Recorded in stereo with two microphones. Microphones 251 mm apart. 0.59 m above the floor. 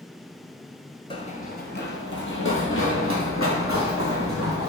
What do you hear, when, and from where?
1.1 s running footsteps: 20° left (ahead or behind), 0.6 m; by 4.7 s 65° left (ahead or behind), 2.5 m